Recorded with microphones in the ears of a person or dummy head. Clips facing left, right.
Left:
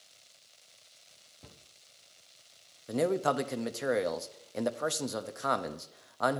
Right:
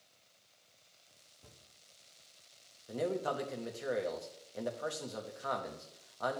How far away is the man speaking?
About 0.7 m.